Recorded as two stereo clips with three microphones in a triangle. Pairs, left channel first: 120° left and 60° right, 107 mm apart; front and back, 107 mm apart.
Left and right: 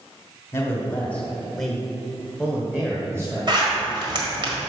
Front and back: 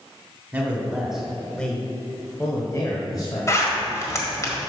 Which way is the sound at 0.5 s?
140° left.